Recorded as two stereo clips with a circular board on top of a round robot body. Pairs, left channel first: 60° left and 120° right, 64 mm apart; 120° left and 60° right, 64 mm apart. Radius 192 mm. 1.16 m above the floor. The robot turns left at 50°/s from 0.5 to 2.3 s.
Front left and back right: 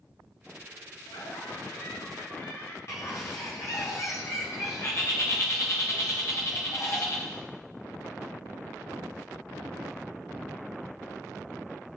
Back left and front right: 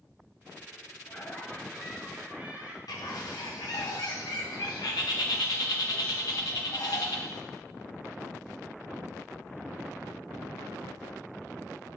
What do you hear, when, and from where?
1.1 s laughter: 70° left, 4 m; by 2.8 s 10° left, 4 m
2.9 s a bird: 105° left, 0.5 m